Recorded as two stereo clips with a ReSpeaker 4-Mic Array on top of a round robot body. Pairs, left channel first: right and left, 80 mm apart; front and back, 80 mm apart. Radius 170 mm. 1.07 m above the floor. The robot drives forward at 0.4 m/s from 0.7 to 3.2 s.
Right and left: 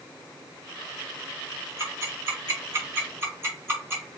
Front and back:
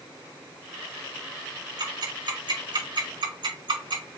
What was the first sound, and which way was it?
Ticking, 145° left.